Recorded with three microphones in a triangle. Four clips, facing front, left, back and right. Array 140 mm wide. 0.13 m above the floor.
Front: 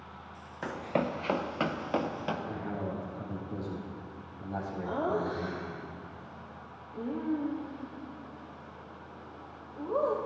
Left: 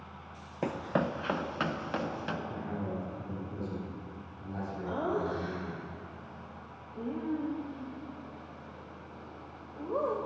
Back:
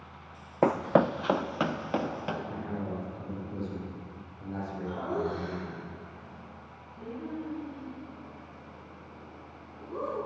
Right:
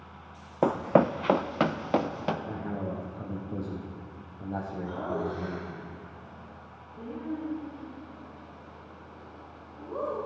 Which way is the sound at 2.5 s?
75° right.